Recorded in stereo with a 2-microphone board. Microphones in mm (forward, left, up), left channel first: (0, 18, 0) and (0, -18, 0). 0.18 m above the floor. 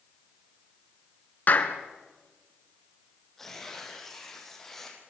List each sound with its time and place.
1.5 s a clap: 55° left (ahead or behind), 2 m
3.4 s tearing paper: 5° left (ahead or behind), 7 m